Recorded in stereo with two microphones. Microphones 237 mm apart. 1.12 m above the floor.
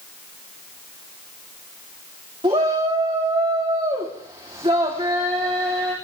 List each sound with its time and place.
2.4 s a shout: 25° right (ahead or behind), 3 m